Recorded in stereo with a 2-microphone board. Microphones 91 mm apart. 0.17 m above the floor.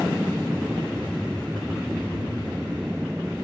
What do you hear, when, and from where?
0.0 s an aircraft: 10° right (ahead or behind)